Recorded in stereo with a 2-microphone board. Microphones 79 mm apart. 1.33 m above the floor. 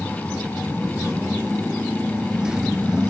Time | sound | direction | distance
0.0 | a motorcycle | 10° right (ahead or behind) | ?